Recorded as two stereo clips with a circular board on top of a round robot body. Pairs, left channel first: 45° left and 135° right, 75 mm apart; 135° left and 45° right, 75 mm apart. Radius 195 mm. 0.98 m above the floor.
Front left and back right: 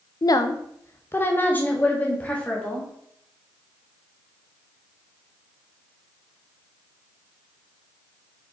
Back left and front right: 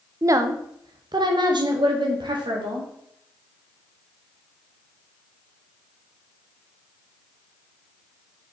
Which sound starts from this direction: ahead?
A woman speaking, at 0.2 s.